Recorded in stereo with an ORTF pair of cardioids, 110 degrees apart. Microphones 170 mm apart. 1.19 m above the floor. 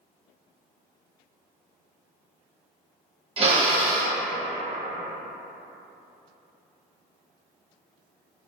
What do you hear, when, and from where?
3.4 s a drill: 35° right, 0.9 m